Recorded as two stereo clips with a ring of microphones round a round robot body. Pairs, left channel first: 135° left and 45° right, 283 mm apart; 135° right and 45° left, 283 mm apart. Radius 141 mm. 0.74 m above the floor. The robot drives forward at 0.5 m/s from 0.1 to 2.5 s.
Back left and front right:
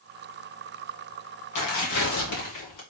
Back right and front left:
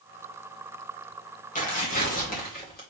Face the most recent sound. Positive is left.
turn(degrees=165)